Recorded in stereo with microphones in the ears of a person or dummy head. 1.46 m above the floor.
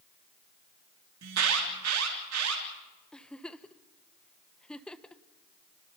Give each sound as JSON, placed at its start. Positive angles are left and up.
{"t": 1.2, "sound": "an alarm", "side_deg": -75, "distance_m": 3.0}
{"t": 3.1, "sound": "a giggle", "side_deg": 5, "distance_m": 0.8}